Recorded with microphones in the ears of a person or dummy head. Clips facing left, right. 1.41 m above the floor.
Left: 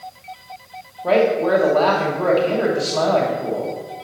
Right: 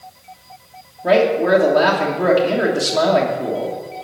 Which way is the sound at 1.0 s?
15° right (ahead or behind).